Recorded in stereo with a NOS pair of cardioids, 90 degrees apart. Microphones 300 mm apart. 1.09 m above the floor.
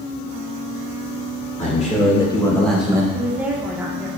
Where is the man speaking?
25° left, 2.5 m; by 3.0 s 15° right, 1.1 m.